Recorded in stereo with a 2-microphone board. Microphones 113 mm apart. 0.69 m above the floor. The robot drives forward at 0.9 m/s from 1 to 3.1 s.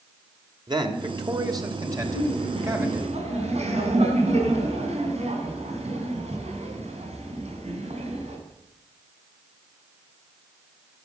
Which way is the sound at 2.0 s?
60° right (ahead or behind).